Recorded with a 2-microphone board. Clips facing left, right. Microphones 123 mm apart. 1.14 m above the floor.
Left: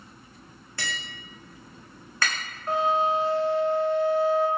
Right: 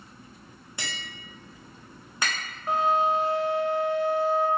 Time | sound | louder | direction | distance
0.8 | tapping | left 3 dB | 15° right (ahead or behind) | 1.0 m
2.7 | a flute | even | 15° right (ahead or behind) | 1.1 m